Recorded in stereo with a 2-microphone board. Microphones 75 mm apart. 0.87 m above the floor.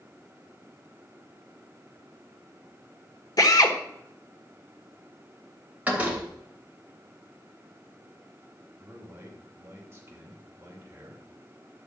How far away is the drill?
About 1.3 m.